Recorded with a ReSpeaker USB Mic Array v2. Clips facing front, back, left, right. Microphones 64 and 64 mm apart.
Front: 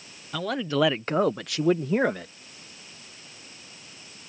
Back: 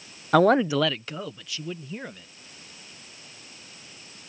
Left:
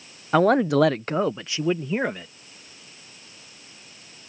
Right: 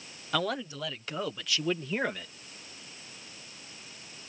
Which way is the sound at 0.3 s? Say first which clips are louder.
Back 8 dB, left 14 dB; 145° left.